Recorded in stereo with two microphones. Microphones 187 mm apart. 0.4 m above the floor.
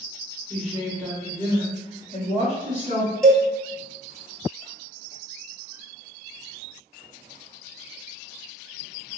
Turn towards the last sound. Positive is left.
turn(degrees=5)  # may be behind; listen again after turning